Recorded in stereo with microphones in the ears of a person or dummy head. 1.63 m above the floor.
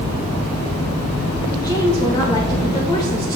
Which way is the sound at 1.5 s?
20° left (ahead or behind).